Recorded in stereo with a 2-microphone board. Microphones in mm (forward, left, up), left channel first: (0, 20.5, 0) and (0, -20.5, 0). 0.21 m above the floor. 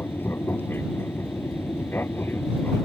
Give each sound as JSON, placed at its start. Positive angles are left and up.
{"t": 0.0, "sound": "an aircraft", "side_deg": 70}